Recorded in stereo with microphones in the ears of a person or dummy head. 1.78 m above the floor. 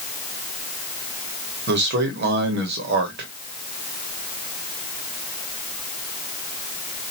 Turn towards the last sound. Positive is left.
turn(degrees=-60)  # may be behind; listen again after turning